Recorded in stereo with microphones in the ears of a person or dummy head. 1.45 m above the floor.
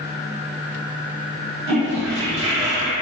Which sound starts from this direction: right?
A toilet flushing, at 1.7 s.